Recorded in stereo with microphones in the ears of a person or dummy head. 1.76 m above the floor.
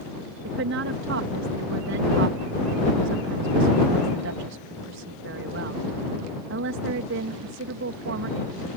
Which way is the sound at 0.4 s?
65° right (ahead or behind).